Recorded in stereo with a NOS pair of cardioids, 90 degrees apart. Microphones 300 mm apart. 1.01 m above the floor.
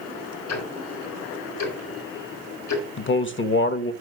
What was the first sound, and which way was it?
Ticking, 70° left.